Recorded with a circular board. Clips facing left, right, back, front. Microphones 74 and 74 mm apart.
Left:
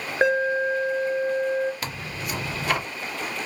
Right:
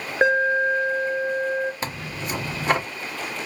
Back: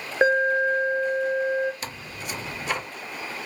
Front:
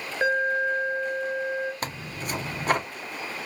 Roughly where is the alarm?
Behind.